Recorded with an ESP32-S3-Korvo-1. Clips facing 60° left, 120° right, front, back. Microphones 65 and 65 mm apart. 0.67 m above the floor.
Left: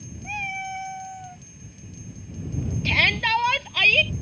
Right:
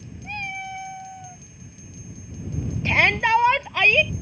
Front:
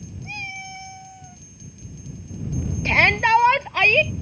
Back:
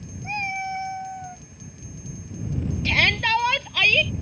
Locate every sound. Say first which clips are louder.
0.2 s a cat meowing: left 1 dB, back 7 dB; 140° left
2.9 s a shout: right 3 dB, front 5 dB; 55° right